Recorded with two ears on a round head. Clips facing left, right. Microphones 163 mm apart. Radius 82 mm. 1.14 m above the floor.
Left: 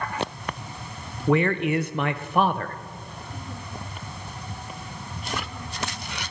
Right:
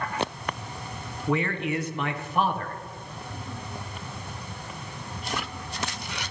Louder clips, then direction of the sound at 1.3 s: Left 5 dB; 50° left (ahead or behind).